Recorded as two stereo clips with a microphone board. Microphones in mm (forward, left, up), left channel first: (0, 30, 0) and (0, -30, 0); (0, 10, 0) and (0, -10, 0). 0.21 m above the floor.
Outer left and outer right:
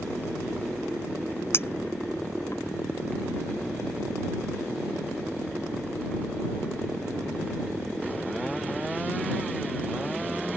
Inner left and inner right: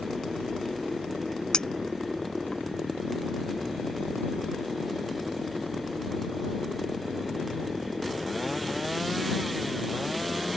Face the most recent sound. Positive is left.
turn(degrees=45)  # may be behind; listen again after turning